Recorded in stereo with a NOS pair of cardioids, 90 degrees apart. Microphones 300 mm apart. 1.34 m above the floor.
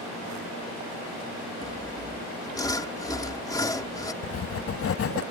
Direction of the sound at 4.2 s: 45° left.